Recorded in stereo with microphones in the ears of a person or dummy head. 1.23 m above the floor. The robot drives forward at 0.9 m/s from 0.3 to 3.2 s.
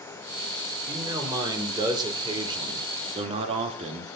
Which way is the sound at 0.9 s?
20° right (ahead or behind).